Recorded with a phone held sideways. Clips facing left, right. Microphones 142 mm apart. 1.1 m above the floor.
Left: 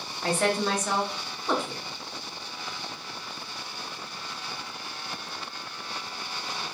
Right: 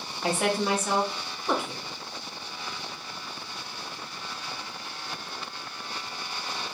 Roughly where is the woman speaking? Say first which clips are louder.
Even; centre.